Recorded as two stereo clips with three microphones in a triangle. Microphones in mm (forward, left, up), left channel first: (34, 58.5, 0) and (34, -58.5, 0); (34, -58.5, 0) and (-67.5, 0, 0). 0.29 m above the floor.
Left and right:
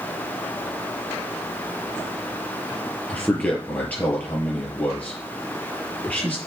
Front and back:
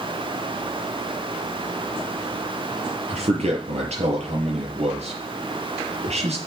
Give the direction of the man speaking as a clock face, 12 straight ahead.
6 o'clock.